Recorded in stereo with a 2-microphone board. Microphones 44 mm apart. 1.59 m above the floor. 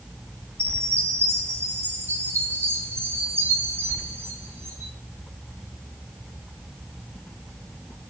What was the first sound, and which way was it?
A chime, 65° right (ahead or behind).